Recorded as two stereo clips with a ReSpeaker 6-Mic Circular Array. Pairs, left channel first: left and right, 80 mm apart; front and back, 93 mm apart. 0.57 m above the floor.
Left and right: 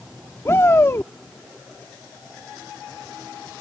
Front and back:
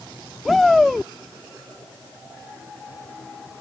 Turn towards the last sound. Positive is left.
turn(degrees=90)